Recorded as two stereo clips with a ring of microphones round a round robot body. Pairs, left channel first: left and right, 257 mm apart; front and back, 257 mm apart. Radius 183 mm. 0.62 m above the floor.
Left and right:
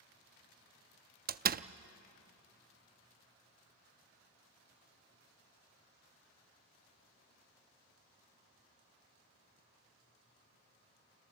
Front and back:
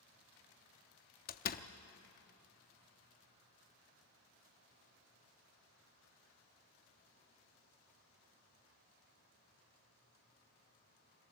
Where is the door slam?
45° right, 0.6 m.